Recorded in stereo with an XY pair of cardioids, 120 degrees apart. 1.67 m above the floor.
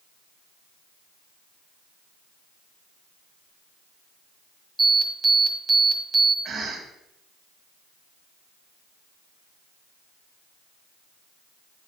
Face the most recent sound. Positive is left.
turn(degrees=-45)